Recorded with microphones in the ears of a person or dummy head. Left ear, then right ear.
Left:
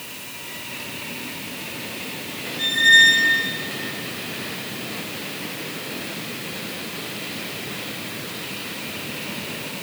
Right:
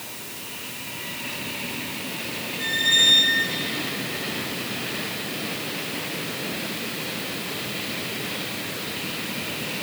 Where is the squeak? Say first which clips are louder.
Left 6 dB; 40° left (ahead or behind), 1.2 m.